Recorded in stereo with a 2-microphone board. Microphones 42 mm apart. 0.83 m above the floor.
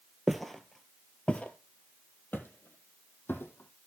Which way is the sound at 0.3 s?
5° right (ahead or behind).